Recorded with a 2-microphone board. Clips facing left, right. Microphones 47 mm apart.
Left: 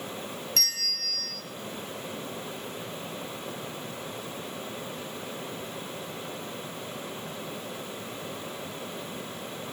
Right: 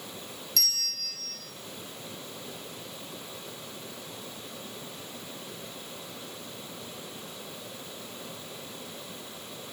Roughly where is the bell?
Left.